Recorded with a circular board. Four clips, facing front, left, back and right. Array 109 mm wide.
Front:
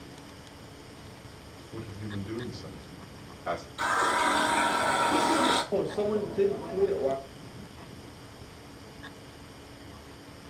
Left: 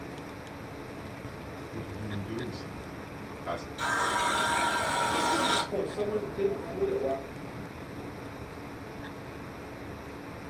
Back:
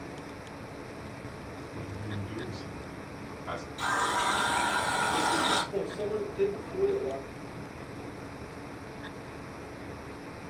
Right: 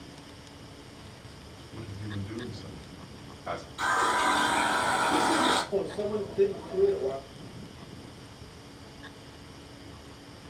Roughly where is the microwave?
Ahead.